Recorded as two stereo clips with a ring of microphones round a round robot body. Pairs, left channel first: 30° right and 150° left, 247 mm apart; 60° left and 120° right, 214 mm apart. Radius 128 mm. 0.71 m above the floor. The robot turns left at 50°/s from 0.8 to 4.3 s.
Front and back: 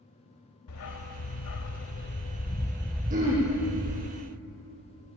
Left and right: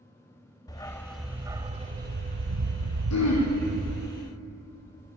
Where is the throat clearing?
90° left, 6.5 m; by 3.5 s 70° left, 6.5 m.